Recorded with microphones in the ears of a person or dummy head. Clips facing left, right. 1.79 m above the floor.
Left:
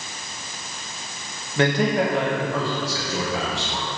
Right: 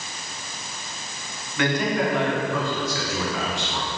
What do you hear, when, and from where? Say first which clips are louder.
1.6 s a man speaking: left 3 dB; 30° left (ahead or behind), 2.5 m